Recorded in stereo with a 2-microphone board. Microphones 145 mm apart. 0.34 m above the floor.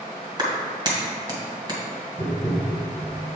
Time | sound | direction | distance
0.4 | a clap | 30° right (ahead or behind) | 1.9 m
2.2 | tapping | 15° right (ahead or behind) | 1.5 m